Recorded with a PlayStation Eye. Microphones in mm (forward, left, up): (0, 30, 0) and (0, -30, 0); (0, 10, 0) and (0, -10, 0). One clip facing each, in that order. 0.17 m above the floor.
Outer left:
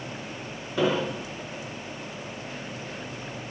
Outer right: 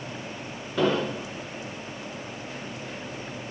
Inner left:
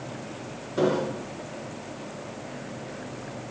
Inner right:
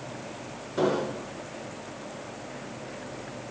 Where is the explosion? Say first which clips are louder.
Outer right 1 dB, inner left 2 dB; 5° left (ahead or behind), 2 m.